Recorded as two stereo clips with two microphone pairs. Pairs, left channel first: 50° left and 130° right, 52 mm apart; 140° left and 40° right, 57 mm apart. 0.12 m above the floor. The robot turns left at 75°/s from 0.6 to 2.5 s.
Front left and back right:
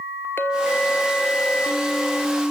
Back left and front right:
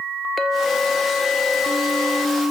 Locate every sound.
0.4 s a clink: 50° left, 1.3 m; by 2.4 s 85° right, 1.3 m